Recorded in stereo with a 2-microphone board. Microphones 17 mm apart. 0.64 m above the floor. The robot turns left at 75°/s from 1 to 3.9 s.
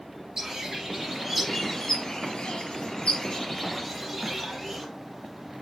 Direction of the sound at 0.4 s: 140° right.